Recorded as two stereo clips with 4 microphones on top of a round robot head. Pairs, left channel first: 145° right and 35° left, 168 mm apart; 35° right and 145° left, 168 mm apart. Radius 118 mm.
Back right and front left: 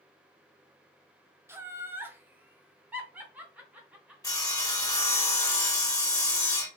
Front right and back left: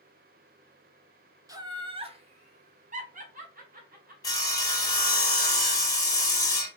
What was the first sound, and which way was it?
Laughter, 100° left.